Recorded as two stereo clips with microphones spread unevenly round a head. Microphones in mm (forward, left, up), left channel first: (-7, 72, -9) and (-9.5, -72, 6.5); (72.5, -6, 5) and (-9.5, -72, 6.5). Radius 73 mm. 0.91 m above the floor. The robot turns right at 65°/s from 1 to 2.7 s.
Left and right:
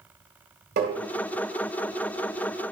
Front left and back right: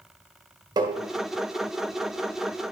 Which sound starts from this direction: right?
Tapping, at 0.8 s.